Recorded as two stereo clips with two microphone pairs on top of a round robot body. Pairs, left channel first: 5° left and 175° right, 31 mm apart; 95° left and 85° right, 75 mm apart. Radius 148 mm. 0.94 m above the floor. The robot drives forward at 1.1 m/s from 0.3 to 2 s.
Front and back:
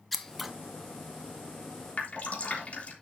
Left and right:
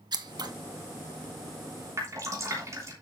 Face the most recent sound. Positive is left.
turn(degrees=-35)